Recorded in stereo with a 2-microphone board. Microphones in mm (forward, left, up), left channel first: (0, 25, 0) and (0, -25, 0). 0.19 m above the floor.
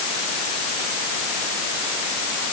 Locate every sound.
Only background noise.